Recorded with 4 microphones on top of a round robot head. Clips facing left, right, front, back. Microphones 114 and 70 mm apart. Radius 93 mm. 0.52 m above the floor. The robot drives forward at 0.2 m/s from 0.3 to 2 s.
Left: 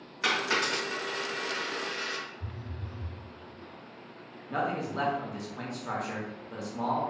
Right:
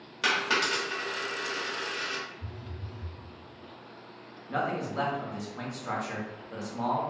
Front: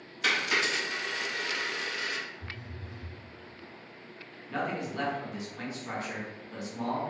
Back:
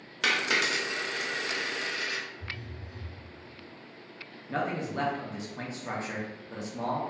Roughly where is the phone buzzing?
Behind left.